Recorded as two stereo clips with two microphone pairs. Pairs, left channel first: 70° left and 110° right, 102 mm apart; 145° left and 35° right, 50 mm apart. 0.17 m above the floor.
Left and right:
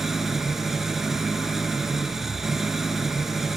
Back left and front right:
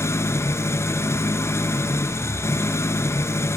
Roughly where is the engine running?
Behind.